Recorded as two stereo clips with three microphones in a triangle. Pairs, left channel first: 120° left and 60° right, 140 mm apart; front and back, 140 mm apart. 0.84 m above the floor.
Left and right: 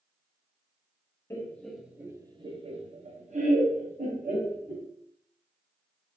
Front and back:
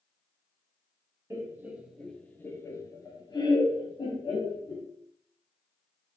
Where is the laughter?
150° left, 0.6 m; by 4.9 s 55° right, 1.6 m.